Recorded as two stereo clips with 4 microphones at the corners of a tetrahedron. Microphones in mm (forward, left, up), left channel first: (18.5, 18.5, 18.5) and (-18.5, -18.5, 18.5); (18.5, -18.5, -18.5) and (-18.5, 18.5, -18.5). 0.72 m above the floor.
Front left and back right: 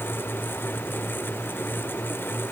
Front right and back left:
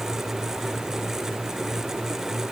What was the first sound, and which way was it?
Only background noise.